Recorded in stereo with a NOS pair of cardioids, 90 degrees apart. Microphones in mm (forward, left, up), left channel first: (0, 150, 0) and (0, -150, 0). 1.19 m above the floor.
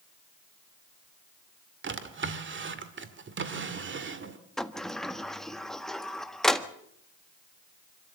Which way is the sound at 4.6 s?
Straight ahead.